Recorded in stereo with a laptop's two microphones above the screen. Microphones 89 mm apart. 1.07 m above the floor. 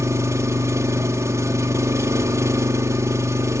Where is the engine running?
35° right (ahead or behind), 1.9 m.